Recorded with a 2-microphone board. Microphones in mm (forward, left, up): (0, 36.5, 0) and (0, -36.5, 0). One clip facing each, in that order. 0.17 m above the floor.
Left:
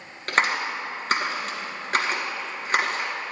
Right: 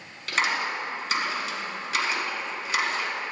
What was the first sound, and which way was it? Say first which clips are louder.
A clap: left 3 dB; 45° left (ahead or behind).